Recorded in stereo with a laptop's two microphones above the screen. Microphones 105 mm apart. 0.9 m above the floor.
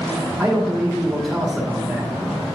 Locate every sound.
0.4 s a man speaking: centre (ahead or behind), 1.6 m